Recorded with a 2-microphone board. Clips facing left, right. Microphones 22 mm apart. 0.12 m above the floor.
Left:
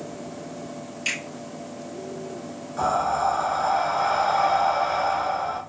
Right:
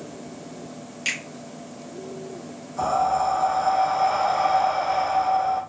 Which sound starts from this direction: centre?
Breathing, at 2.8 s.